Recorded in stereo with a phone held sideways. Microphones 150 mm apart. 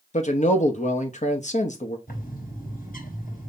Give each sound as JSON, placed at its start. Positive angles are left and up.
{"t": 0.1, "sound": "a man speaking", "side_deg": 55, "distance_m": 1.0}
{"t": 2.1, "sound": "a bird", "side_deg": 75, "distance_m": 4.0}